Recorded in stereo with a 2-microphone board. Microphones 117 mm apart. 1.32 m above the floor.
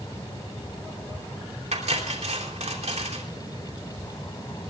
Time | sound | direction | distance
1.7 | cutlery clinking | 70° right (ahead or behind) | 3 m